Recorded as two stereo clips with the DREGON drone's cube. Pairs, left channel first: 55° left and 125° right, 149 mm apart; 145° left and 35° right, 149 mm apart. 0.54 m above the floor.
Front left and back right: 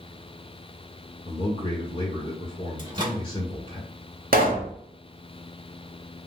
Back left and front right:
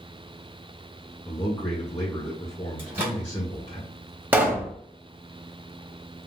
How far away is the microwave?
About 1.2 m.